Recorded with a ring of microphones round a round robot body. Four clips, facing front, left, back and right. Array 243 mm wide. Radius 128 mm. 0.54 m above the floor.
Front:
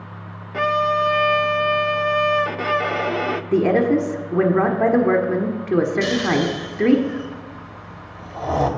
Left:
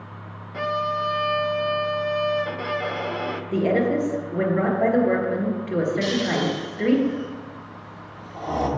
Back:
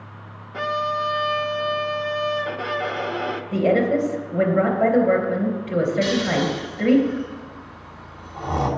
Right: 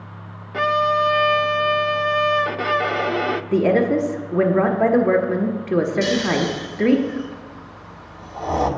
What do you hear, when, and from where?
0.5 s a violin: 50° right, 0.6 m
3.5 s a woman speaking: 30° right, 1.5 m
6.0 s snoring: 15° right, 1.6 m